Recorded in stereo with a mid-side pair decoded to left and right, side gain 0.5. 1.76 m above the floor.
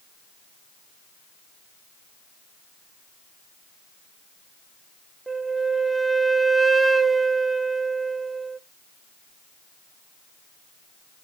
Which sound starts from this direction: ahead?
A flute, at 5.3 s.